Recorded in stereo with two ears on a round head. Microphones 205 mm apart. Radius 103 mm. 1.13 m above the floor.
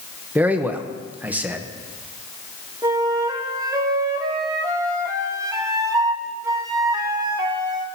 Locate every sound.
0.3 s a man speaking: 10° right (ahead or behind), 1.0 m
2.8 s a flute: 15° right (ahead or behind), 1.2 m